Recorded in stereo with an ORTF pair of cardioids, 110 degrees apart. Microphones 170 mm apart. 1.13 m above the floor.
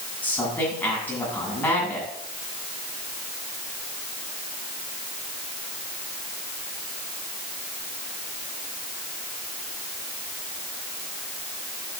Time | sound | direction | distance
0.2 | a man speaking | 10° left | 8.5 m